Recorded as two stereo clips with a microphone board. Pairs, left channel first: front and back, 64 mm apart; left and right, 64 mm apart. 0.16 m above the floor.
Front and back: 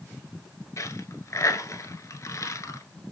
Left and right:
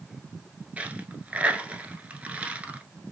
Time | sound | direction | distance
0.8 | a dropped coin | 25° right | 0.8 m